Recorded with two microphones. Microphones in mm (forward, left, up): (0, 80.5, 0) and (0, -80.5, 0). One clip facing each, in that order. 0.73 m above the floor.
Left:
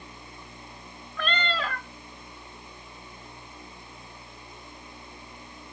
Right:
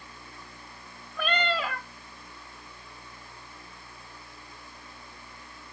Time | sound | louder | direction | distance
1.2 | a cat meowing | right 2 dB | 10° right (ahead or behind) | 0.8 m